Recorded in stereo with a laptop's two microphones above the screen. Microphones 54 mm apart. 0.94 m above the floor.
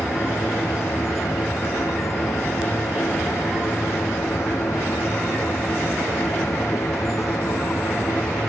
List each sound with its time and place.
0.0 s a machine running: 65° left (ahead or behind)